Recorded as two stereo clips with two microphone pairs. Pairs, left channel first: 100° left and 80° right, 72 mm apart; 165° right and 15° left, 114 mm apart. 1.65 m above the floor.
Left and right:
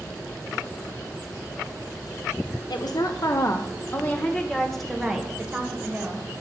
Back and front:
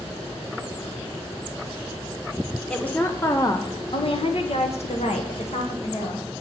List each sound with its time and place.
2.7 s a woman speaking: 115° left, 1.0 m; by 6.3 s 150° right, 1.6 m